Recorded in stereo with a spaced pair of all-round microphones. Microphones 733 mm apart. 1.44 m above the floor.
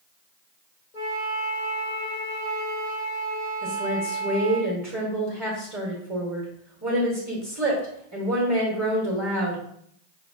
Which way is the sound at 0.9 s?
85° left.